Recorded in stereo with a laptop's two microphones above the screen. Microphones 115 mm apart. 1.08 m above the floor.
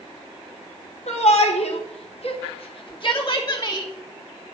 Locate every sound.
1.1 s a shout: 70° left (ahead or behind), 1.7 m; by 3.9 s 25° left (ahead or behind), 1.8 m